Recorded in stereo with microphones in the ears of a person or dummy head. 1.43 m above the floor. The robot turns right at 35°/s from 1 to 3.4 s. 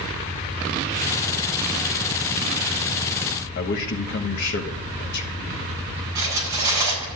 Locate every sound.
3.5 s a man speaking: 60° left (ahead or behind), 1.5 m
6.2 s cutlery clinking: 20° right (ahead or behind), 8.5 m